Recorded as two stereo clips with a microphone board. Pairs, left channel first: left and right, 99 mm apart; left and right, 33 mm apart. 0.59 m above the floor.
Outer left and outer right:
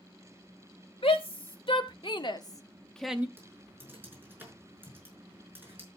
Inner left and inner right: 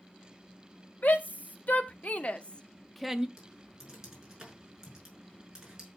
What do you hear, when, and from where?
1.0 s a shout: 65° left (ahead or behind), 3 m; by 3.3 s 20° right (ahead or behind), 0.9 m
3.4 s typing on a keyboard: 20° right (ahead or behind), 6 m